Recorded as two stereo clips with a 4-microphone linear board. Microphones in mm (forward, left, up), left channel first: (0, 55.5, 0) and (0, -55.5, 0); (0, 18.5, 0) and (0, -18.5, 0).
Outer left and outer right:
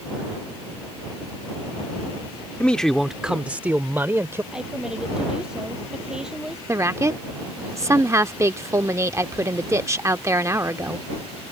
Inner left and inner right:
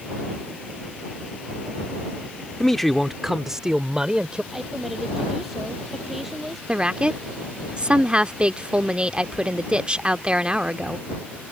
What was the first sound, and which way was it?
A man speaking, 10° left (ahead or behind).